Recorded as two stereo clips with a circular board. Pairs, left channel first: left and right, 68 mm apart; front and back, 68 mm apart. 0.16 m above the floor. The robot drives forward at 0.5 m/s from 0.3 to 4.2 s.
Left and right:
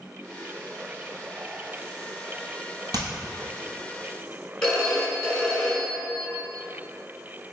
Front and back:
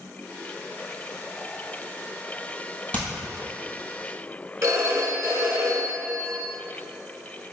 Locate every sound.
2.9 s hammering: 70° right, 1.1 m
4.6 s a phone ringing: 165° left, 0.9 m